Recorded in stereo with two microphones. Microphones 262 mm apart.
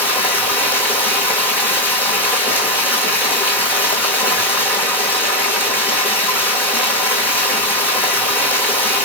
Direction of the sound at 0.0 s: 5° left (ahead or behind).